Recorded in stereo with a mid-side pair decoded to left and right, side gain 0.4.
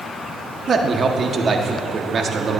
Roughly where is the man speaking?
Ahead right.